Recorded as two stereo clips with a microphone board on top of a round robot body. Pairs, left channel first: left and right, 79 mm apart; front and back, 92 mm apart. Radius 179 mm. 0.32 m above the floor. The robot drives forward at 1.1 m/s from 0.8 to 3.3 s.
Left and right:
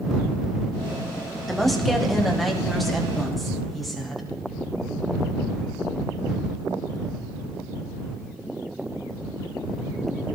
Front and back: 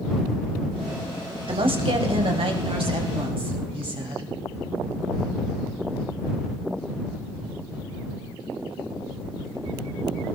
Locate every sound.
1.5 s a woman speaking: straight behind, 3 m